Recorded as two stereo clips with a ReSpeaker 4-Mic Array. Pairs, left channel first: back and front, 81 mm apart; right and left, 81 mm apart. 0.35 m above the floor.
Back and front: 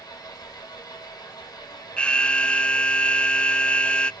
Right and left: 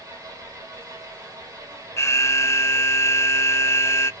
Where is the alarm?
110° right, 0.7 m.